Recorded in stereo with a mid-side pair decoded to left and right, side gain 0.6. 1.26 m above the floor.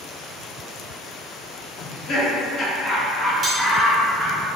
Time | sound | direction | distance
1.8 | laughter | 45° left | 1.5 m
3.4 | cutlery clinking | 30° right | 1.2 m